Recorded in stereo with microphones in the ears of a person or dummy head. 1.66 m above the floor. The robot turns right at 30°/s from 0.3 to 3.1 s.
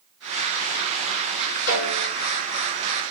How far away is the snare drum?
About 5.5 m.